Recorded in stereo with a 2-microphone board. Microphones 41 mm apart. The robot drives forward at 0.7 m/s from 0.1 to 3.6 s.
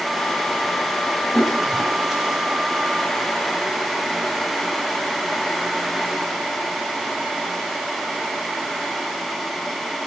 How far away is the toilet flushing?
About 3.5 m.